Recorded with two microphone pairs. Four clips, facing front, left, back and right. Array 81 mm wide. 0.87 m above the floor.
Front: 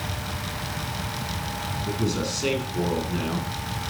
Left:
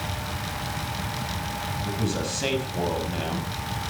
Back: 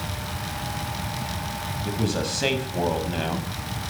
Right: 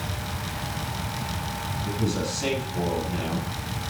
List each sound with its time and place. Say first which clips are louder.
1.9 s a man speaking: right 2 dB, back 1 dB; 165° left, 5.5 m